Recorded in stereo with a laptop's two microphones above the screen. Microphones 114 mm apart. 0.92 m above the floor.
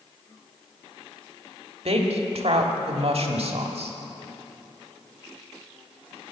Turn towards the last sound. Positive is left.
turn(degrees=-60)  # may be behind; listen again after turning